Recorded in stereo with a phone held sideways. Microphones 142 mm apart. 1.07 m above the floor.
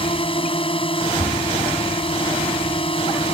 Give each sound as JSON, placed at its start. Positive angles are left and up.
{"t": 0.0, "sound": "a drone", "side_deg": 40}